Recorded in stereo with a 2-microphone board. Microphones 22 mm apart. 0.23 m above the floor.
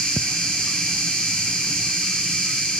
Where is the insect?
70° left (ahead or behind), 1.1 m.